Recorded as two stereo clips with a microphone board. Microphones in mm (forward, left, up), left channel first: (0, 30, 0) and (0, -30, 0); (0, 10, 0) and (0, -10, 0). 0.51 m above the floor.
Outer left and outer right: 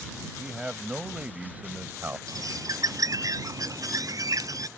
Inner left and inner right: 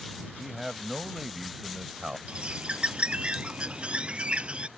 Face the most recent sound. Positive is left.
turn(degrees=-70)  # may be behind; listen again after turning